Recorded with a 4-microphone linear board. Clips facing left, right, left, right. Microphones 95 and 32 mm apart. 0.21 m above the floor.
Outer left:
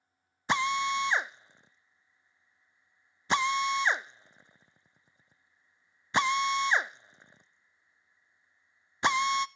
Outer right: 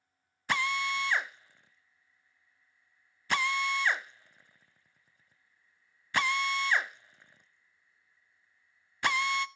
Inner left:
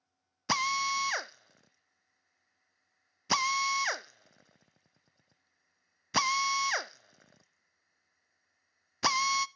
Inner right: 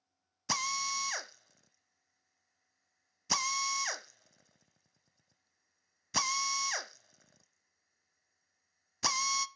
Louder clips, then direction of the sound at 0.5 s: Outer left 3 dB, inner left 5 dB; 20° left (ahead or behind).